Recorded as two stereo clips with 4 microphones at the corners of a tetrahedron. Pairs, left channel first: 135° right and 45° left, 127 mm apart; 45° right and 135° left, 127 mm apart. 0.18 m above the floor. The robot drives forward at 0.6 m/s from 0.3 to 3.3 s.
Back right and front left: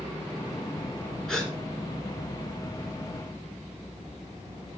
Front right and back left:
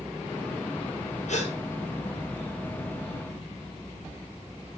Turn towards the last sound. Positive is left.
turn(degrees=-75)